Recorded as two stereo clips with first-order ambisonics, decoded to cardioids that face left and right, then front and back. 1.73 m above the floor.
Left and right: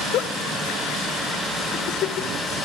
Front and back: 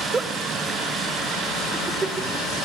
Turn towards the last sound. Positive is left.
turn(degrees=110)